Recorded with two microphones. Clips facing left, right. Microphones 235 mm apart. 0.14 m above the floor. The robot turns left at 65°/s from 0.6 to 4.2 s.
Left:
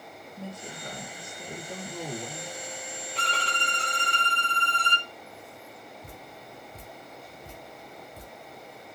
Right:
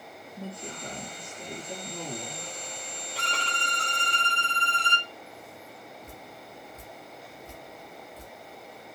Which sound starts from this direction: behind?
A violin, at 3.1 s.